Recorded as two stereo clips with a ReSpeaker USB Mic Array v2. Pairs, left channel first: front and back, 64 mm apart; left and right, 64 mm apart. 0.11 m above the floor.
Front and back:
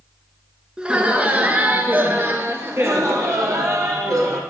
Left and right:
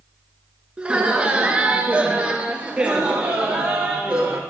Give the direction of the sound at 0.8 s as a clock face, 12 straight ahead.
4 o'clock.